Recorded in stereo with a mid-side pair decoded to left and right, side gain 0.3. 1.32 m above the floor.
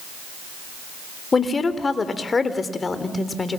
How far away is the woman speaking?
About 3.5 m.